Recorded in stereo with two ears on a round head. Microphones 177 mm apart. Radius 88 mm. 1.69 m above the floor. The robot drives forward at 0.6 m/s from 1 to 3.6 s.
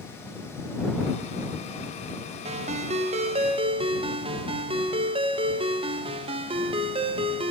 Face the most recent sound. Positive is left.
turn(degrees=-30)  # may be behind; listen again after turning